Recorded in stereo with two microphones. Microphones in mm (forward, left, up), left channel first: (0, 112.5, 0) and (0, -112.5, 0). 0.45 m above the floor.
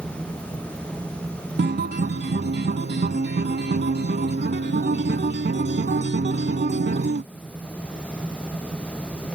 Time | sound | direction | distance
1.6 | a guitar | 45° right (ahead or behind) | ?